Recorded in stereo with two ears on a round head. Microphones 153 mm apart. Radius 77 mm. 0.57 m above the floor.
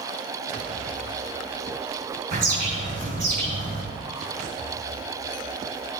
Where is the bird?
55° right (ahead or behind), 5.5 m.